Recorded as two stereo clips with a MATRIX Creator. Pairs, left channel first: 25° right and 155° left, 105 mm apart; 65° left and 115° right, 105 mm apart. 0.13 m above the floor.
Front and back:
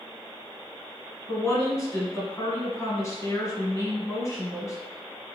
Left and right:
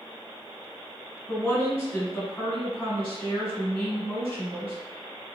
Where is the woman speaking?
Straight ahead, 1.5 m.